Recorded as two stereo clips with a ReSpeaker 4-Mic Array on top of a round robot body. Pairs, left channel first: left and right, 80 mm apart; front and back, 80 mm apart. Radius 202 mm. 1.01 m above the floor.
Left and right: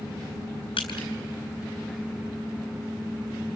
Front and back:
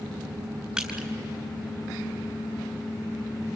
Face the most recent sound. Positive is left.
turn(degrees=95)